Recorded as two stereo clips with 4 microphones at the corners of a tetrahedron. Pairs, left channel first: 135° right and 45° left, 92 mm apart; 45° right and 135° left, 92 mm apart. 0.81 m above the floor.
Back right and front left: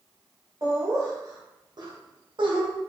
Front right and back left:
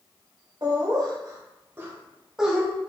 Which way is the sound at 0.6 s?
100° left.